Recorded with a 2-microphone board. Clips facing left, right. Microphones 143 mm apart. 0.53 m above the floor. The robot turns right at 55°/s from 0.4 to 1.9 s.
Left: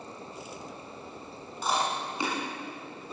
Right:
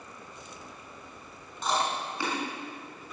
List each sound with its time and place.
1.6 s chewing: 5° left (ahead or behind), 6 m; by 2.4 s 20° left (ahead or behind), 6 m